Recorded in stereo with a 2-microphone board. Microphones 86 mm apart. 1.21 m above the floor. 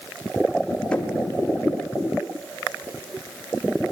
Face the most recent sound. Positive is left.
turn(degrees=10)  # may be behind; listen again after turning